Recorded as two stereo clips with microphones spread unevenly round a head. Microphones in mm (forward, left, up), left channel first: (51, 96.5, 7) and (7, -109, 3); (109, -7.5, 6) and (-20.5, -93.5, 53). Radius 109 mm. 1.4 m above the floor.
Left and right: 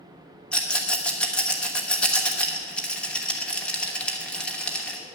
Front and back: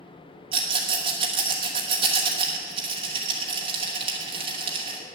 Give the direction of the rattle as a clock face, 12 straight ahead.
7 o'clock.